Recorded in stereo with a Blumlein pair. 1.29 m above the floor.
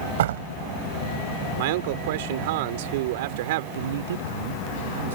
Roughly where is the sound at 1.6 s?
Ahead right.